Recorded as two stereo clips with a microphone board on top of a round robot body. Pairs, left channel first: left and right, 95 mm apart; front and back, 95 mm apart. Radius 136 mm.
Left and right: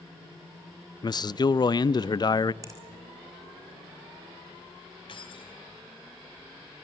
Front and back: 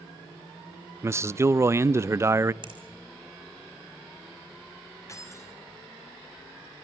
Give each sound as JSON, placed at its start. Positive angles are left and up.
{"t": 1.0, "sound": "a man speaking", "azimuth_deg": 120, "distance_m": 0.6}
{"t": 2.6, "sound": "a finger snap", "azimuth_deg": -145, "distance_m": 4.5}
{"t": 5.1, "sound": "keys jangling", "azimuth_deg": 60, "distance_m": 4.5}